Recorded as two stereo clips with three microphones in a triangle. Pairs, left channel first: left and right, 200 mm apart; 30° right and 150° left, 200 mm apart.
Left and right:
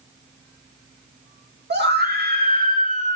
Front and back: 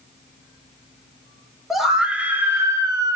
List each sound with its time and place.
1.7 s a scream: 120° right, 2.5 m; by 3.2 s 140° right, 2 m